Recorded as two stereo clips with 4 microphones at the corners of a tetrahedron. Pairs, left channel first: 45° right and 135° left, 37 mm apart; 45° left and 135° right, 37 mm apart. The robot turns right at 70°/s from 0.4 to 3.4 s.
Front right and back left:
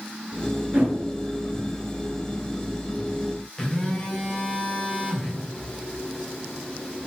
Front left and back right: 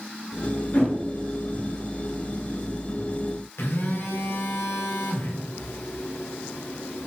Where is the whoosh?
85° left, 2 m; by 0.9 s 95° left, 2 m.